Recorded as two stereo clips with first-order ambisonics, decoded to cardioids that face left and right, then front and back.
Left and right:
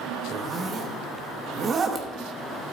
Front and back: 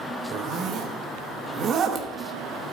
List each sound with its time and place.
0.3 s a zipper: 140° right, 0.9 m